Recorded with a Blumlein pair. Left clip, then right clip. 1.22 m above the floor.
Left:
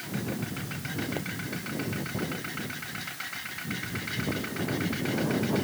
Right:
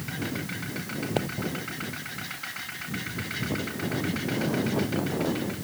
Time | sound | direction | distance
1.2 | a pop | 65° right | ?